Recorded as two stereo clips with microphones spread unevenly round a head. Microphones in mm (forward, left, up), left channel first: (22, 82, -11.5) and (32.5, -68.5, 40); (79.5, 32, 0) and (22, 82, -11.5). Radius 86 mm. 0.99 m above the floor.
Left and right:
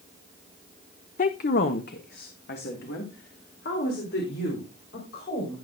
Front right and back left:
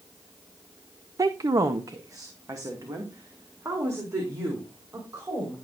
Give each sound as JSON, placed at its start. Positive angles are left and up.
{"t": 1.2, "sound": "a woman speaking", "azimuth_deg": 105, "distance_m": 0.5}